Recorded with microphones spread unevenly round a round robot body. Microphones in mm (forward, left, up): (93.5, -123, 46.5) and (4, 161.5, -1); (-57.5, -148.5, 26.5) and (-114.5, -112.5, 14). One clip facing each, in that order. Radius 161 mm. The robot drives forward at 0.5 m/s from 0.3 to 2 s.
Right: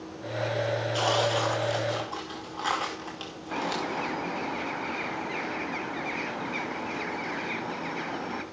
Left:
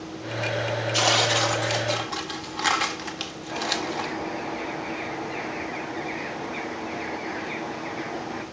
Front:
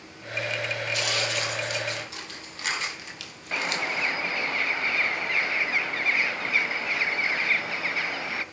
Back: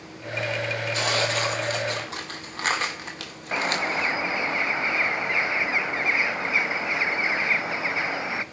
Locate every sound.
0.9 s tearing paper: 125° left, 1.5 m; by 4.1 s 140° left, 1.8 m
3.5 s a bird: 145° right, 1.3 m